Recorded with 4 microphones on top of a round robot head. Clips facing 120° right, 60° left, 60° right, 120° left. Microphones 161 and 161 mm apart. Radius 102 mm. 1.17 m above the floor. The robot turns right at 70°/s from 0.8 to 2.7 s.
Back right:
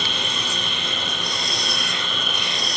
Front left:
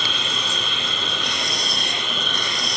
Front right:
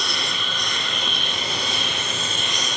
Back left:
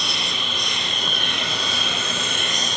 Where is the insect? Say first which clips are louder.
Even, even; 50° left, 8.5 m; by 2.8 s 175° right, 8.5 m.